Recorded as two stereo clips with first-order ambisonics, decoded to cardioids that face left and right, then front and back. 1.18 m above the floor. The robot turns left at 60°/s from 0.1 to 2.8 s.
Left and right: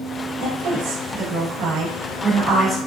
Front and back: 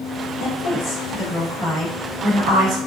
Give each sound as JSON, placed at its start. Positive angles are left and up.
{"t": 0.4, "sound": "a woman speaking", "azimuth_deg": -15, "distance_m": 1.4}